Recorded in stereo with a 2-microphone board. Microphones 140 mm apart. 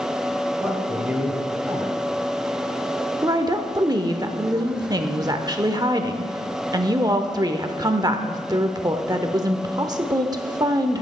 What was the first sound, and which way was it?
A man speaking, 15° right (ahead or behind).